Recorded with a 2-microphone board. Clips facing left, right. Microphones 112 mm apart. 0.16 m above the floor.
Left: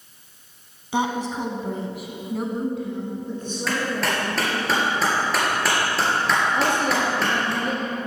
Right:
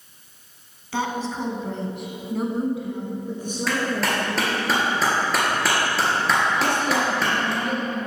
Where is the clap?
Centre (ahead or behind), 3 m.